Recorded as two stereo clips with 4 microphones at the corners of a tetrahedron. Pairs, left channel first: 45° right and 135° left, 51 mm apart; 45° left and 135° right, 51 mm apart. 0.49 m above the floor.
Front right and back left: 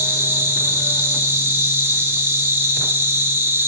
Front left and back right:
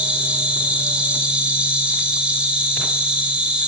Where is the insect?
160° left, 2.5 m.